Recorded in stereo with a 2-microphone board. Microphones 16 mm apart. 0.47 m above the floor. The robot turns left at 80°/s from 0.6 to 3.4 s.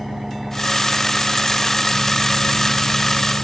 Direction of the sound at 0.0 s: 20° right.